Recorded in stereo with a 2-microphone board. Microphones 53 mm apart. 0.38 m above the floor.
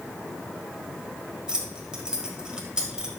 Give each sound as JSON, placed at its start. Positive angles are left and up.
{"t": 1.5, "sound": "keys jangling", "side_deg": -15, "distance_m": 1.4}